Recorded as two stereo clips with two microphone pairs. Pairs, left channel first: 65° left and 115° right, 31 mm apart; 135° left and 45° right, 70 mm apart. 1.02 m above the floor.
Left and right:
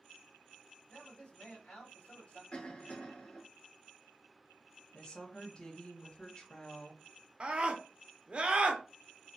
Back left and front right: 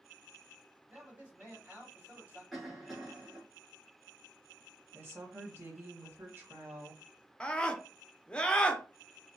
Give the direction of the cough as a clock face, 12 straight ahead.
11 o'clock.